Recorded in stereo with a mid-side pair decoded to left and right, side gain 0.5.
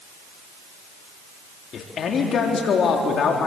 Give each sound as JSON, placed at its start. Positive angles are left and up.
{"t": 1.7, "sound": "a man speaking", "azimuth_deg": 50, "distance_m": 3.0}